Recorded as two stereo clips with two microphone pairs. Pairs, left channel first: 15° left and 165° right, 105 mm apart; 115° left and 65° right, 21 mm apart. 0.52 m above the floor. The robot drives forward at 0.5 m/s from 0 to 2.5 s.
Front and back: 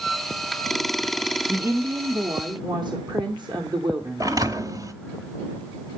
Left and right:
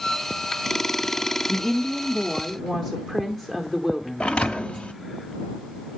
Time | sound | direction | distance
1.5 | a woman speaking | 165° left | 0.7 m
4.2 | a thud | 135° left | 0.8 m